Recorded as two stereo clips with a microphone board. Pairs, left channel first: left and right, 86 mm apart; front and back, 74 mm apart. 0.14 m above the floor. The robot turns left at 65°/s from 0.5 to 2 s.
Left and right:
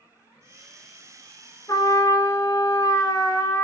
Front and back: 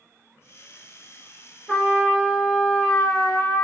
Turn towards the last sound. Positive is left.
turn(degrees=65)